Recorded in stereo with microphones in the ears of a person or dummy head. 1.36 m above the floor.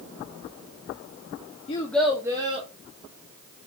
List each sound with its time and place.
1.7 s a child speaking: 35° left (ahead or behind), 0.8 m; by 2.7 s 30° right (ahead or behind), 1.6 m